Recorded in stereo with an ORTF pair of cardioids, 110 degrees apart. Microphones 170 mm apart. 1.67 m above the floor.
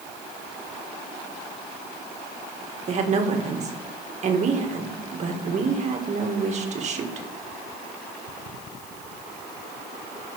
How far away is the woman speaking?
About 1.8 m.